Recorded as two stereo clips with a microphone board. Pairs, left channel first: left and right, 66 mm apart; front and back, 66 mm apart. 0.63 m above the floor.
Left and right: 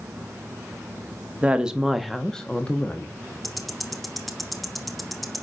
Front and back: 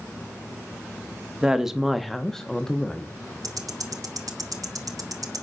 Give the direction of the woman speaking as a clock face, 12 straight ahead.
4 o'clock.